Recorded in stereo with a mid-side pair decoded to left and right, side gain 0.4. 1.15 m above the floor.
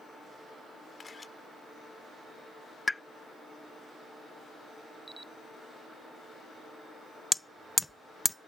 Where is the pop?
15° left.